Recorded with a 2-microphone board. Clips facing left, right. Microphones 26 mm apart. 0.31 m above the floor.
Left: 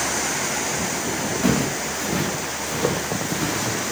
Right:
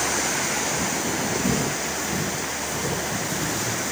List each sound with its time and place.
1.4 s footsteps: 70° left (ahead or behind), 1.9 m; by 3.9 s 65° left (ahead or behind), 3 m